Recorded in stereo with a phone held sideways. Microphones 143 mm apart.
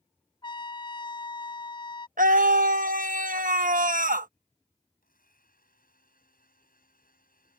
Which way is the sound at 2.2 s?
70° right (ahead or behind).